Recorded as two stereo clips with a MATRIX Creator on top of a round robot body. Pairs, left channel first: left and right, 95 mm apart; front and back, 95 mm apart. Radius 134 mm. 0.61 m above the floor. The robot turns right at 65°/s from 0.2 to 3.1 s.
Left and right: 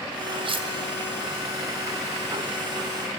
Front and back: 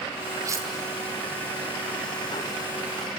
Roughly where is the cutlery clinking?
Behind right.